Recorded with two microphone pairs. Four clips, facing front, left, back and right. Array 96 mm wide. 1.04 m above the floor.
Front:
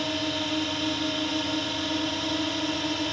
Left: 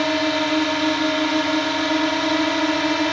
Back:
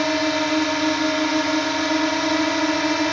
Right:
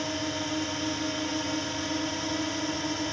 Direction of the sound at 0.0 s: 125° left.